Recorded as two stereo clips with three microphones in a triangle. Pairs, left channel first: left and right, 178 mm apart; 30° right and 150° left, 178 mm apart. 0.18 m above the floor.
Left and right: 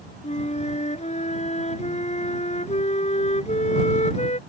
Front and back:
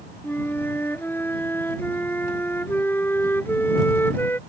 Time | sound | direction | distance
0.2 | a flute | 45° left | ?